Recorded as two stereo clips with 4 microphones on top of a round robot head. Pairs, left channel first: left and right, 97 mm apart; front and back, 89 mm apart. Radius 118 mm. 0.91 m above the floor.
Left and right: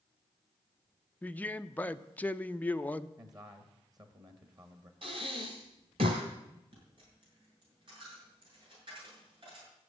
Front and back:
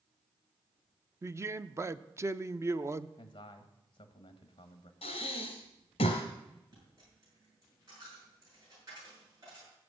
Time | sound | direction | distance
1.2 | a man speaking | 150° left | 0.7 m
3.2 | a man speaking | 40° right | 1.3 m
5.0 | breathing | 40° right | 1.2 m
6.7 | a dropped coin | 125° right | 8 m